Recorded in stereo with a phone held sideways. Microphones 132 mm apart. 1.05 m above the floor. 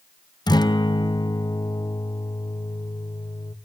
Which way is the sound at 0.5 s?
30° left (ahead or behind).